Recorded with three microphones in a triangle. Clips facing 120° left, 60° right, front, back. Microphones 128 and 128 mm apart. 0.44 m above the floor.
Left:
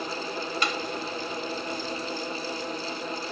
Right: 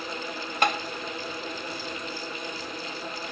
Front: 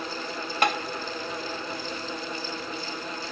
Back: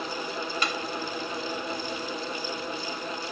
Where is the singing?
No singing in this recording.